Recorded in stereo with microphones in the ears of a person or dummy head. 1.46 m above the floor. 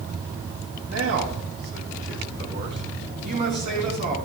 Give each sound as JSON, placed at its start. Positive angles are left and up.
{"t": 0.9, "sound": "a man speaking", "side_deg": -75, "distance_m": 2.5}